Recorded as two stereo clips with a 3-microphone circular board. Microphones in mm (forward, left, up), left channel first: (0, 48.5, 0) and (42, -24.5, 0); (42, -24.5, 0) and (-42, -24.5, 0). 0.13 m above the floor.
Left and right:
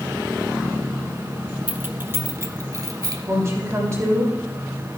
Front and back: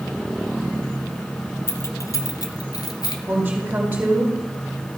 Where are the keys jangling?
Straight ahead, 0.9 m; by 3.2 s 25° right, 1.6 m.